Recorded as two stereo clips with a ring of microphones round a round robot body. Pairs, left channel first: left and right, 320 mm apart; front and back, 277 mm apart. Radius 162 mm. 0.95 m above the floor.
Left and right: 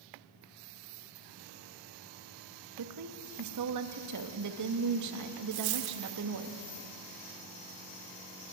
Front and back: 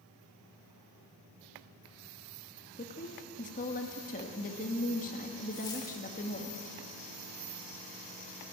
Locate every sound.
2.8 s a woman speaking: 65° right, 1.7 m
5.5 s a dropped coin: 80° right, 1.2 m